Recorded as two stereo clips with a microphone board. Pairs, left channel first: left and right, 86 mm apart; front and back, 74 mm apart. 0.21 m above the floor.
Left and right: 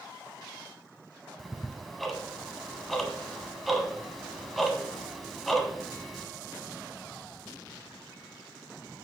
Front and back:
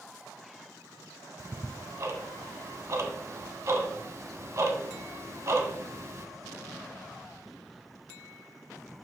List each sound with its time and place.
1.4 s ticking: straight behind, 0.6 m